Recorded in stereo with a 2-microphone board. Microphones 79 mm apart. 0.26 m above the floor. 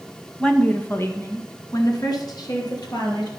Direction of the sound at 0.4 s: 10° left (ahead or behind).